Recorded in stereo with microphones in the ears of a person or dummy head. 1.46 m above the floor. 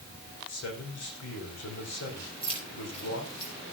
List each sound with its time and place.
0.5 s a man speaking: 65° left (ahead or behind), 4.5 m
2.4 s keys jangling: 35° left (ahead or behind), 4.5 m